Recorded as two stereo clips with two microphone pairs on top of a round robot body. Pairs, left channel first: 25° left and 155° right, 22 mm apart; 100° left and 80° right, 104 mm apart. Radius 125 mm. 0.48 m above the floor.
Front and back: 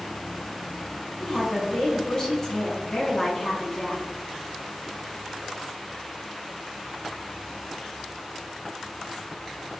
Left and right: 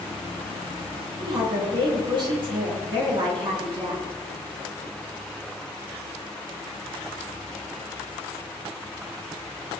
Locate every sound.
1.2 s a woman speaking: 40° right, 6 m